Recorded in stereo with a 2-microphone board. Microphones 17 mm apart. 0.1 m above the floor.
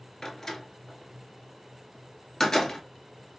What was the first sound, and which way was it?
A door slam, 35° left (ahead or behind).